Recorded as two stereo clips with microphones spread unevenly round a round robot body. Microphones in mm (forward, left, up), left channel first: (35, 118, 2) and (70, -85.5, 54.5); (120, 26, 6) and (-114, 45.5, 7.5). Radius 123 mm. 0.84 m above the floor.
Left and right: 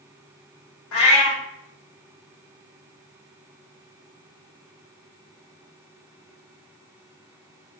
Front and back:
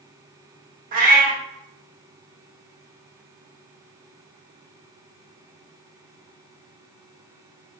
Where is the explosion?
No explosion in this recording.